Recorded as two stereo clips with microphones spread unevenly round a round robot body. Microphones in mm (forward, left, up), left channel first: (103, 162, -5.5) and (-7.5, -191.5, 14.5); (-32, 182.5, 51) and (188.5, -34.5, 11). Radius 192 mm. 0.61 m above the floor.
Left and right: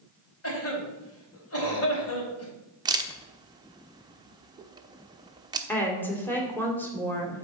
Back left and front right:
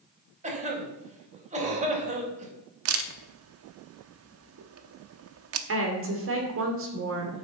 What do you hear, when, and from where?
0.4 s a cough: 20° left, 3.5 m
2.9 s a camera shutter: 30° right, 0.9 m
5.7 s a woman speaking: 10° right, 2.5 m